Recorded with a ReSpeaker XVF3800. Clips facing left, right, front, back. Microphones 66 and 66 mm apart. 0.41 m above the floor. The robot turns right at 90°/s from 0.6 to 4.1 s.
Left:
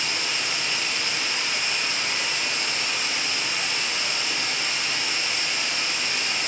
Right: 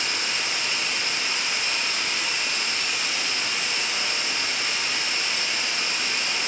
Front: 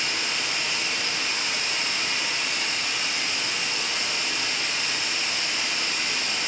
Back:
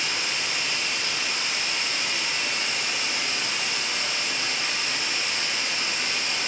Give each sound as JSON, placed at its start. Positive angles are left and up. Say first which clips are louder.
{"t": 0.0, "sound": "running water", "louder": "even, even", "azimuth_deg": -90, "distance_m": 0.9}